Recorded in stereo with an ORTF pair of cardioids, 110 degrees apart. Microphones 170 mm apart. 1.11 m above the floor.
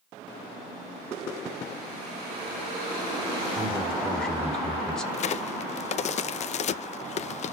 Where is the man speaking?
5° left, 2.5 m.